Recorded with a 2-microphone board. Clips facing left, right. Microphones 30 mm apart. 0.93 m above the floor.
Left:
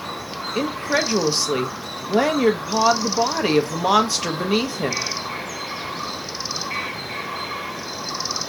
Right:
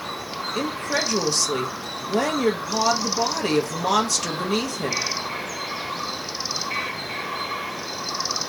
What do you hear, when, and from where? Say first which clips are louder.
0.6 s a woman speaking: left 4 dB; 25° left (ahead or behind), 0.8 m